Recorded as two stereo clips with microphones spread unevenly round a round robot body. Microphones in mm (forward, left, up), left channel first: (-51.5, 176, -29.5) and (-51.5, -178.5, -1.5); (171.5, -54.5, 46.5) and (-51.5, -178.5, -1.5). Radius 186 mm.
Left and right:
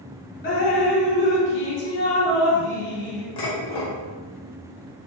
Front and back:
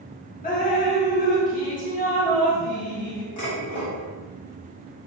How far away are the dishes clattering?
About 1.2 m.